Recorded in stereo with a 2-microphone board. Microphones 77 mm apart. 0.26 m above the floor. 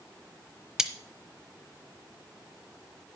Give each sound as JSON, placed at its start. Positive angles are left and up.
{"t": 0.8, "sound": "cutlery clinking", "side_deg": -5, "distance_m": 0.9}